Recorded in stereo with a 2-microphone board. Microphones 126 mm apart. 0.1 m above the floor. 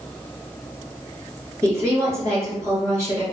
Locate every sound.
1.6 s a woman speaking: 25° right (ahead or behind), 1.5 m